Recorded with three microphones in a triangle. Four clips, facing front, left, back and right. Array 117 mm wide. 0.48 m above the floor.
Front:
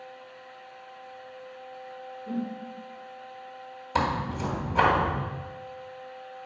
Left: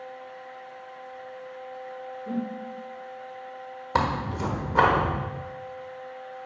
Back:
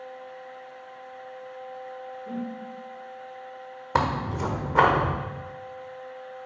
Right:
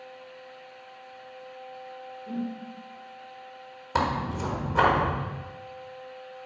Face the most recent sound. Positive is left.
turn(degrees=150)